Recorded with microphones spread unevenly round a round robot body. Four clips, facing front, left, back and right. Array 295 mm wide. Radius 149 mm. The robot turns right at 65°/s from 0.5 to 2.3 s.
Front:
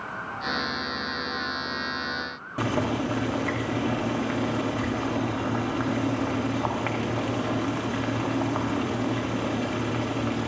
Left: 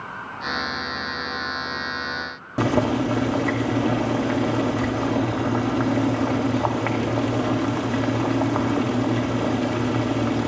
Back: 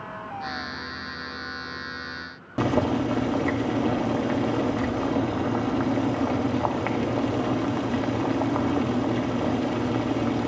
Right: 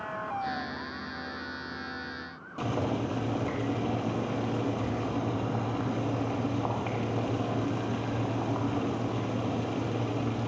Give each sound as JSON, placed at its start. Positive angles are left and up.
{"t": 2.6, "sound": "boiling", "azimuth_deg": 110, "distance_m": 1.5}